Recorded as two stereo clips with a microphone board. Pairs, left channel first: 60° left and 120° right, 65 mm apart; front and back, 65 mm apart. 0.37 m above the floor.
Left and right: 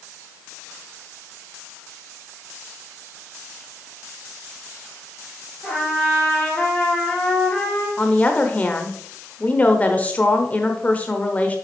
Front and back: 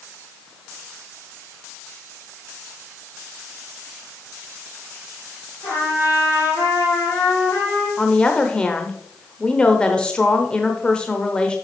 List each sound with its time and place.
5.6 s a trumpet: 10° right, 4 m
8.0 s a woman speaking: 45° left, 0.8 m